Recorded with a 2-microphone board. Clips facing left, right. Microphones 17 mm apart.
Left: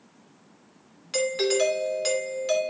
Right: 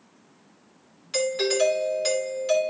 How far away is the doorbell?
About 2.5 m.